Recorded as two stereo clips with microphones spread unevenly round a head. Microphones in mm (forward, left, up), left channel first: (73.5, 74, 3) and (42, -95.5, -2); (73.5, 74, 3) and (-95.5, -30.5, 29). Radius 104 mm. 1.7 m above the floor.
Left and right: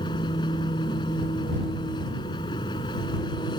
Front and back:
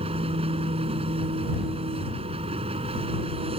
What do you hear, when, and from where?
0.0 s an engine running: 150° left